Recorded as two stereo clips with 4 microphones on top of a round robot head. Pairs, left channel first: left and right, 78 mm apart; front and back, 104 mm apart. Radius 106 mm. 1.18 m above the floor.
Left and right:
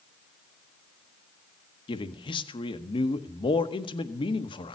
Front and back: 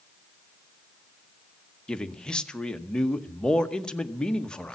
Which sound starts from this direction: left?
A man speaking, at 1.9 s.